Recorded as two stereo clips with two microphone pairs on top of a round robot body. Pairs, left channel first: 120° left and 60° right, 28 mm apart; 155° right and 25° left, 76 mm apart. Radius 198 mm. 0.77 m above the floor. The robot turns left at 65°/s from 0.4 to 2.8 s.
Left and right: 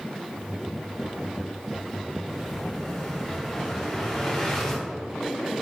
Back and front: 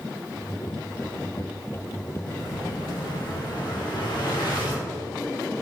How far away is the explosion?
About 3.5 m.